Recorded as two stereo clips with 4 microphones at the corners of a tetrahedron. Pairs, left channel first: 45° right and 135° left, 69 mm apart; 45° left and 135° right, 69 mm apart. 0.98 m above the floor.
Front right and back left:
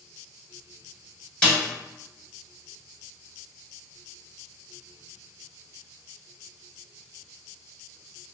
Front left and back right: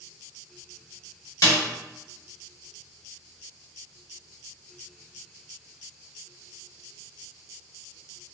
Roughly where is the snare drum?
Ahead left.